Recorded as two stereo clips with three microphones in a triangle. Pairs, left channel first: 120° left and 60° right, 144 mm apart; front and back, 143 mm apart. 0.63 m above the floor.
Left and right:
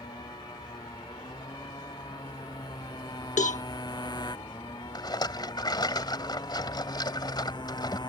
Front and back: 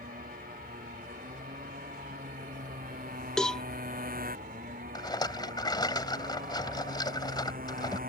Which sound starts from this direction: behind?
A motorcycle, at 0.0 s.